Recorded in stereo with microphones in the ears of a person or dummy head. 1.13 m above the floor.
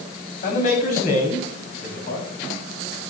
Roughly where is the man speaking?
Left.